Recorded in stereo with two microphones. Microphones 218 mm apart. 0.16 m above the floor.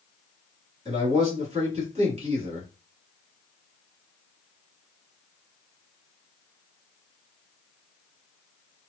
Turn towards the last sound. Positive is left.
turn(degrees=-30)  # may be behind; listen again after turning